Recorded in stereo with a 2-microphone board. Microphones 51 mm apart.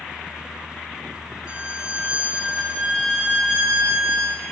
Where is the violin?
25° right (ahead or behind), 1.2 m.